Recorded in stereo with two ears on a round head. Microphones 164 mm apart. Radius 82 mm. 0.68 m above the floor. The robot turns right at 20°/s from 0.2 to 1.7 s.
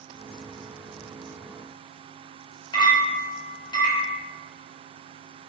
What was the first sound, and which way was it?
A clink, 25° left (ahead or behind).